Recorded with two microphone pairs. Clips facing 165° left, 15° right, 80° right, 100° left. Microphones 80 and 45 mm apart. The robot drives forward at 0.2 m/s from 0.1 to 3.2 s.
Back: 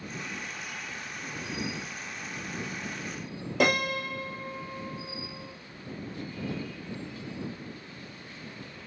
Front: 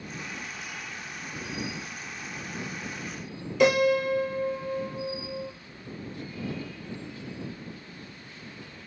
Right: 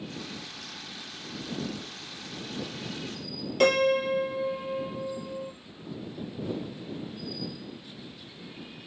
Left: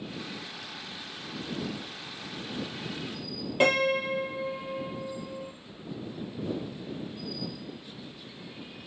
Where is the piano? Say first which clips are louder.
Front 6 dB, right 2 dB; 160° left, 1.3 m.